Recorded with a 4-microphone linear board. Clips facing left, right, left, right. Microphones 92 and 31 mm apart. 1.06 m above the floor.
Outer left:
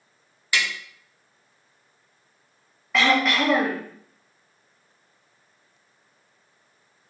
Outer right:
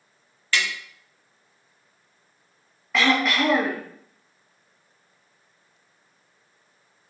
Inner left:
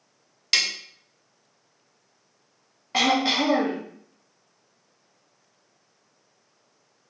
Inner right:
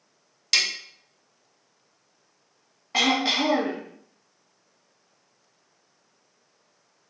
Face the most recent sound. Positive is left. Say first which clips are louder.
# outer left 1 dB, inner left 1 dB
turn(degrees=0)  # may be behind; listen again after turning